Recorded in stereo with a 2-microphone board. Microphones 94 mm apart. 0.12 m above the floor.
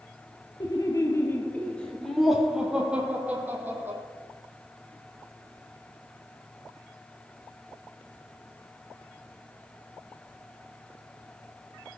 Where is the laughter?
45° left (ahead or behind), 2.5 m; by 4.0 s 25° right (ahead or behind), 4.5 m.